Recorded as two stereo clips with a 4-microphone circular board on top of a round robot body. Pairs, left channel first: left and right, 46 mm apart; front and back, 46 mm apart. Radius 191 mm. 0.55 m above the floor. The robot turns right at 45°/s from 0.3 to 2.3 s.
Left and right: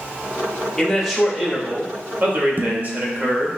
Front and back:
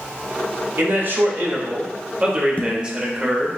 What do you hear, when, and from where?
0.8 s a man speaking: 170° left, 1.3 m; by 3.6 s 120° right, 1.3 m
2.6 s dishes clattering: 50° right, 0.7 m